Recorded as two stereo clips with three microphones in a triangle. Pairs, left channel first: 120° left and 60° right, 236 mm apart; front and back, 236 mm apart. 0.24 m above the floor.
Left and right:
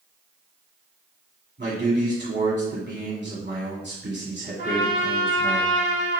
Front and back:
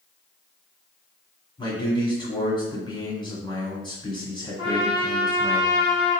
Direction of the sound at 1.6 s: 65° right.